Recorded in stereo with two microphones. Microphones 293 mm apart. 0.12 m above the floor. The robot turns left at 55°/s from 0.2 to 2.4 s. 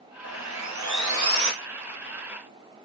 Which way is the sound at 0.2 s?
60° right.